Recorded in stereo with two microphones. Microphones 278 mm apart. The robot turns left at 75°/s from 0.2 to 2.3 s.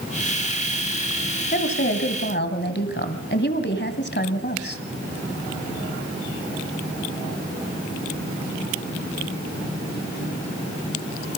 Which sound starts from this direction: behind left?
A woman speaking, at 1.5 s.